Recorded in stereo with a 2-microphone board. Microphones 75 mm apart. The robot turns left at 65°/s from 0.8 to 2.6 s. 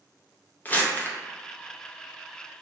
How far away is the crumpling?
About 0.5 m.